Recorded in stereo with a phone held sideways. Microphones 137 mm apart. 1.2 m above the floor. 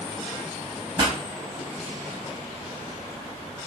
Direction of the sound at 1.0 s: 35° right (ahead or behind).